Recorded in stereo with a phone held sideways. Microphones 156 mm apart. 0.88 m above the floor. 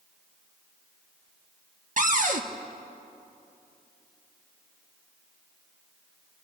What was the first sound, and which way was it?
A cupboard door, 60° right (ahead or behind).